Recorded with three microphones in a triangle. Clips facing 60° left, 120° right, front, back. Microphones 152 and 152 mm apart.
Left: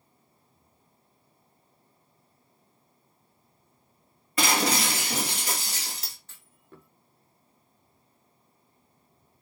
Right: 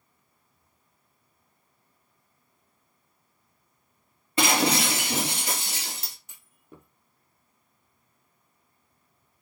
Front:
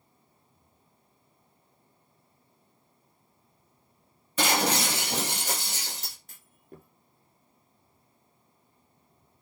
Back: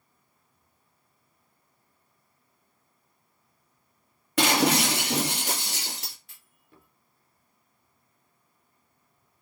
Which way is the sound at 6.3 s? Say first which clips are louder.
Right 1 dB, front 9 dB; 40° right.